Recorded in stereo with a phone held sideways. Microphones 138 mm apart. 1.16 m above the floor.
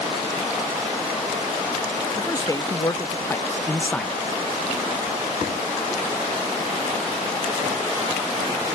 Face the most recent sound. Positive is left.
turn(degrees=5)  # may be behind; listen again after turning